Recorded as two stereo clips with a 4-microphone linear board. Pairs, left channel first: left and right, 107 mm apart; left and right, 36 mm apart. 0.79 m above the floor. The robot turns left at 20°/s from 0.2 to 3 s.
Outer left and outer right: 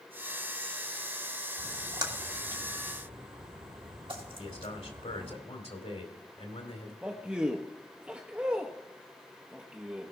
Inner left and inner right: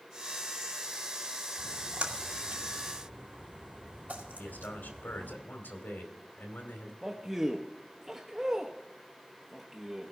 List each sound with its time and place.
1.6 s a splash: 35° right (ahead or behind), 1.6 m; by 5.4 s 50° right (ahead or behind), 1.6 m
4.4 s a man speaking: 75° left (ahead or behind), 2.5 m
7.0 s a man speaking: 10° right (ahead or behind), 0.7 m